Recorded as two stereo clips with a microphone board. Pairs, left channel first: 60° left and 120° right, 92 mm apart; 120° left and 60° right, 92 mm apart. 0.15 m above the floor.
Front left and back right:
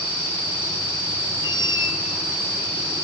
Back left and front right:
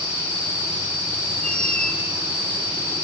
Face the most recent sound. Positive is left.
turn(degrees=45)